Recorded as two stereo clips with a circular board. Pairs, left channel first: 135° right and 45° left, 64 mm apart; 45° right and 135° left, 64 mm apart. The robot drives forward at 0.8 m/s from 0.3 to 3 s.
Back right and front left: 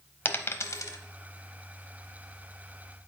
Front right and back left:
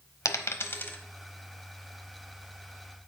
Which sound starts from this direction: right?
A dropped coin, at 0.2 s.